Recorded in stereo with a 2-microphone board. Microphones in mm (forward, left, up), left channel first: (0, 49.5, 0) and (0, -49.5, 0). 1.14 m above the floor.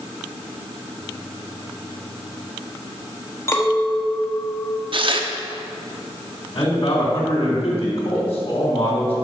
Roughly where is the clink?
Left.